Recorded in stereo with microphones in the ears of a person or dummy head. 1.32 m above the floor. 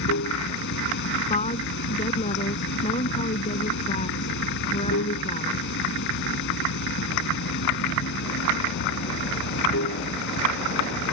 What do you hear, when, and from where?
0.0 s running water: 70° left (ahead or behind)
1.3 s a woman speaking: 40° left (ahead or behind)